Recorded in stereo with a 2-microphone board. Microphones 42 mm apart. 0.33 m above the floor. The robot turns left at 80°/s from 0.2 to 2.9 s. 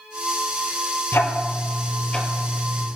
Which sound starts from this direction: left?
Ticking, at 1.1 s.